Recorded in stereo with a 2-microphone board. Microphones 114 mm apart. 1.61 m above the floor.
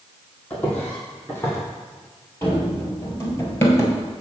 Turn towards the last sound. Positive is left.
turn(degrees=20)  # may be behind; listen again after turning